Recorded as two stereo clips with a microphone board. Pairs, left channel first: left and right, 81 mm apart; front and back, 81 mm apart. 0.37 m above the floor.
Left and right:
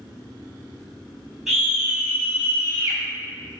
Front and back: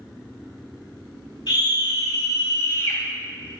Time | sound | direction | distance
1.5 | a scream | 5° right | 2.5 m